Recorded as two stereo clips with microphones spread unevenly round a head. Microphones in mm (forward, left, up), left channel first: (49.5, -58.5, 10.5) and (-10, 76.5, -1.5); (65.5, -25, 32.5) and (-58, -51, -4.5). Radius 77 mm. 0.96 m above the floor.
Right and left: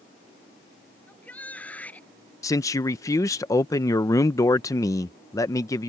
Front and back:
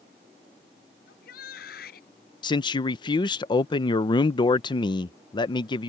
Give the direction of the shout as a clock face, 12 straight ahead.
12 o'clock.